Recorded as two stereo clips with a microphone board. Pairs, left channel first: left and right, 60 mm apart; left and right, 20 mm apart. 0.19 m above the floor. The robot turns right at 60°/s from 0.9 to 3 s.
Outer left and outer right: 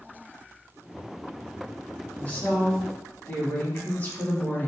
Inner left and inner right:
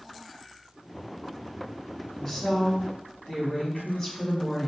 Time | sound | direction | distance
2.1 | a woman speaking | 60° left | 1.5 m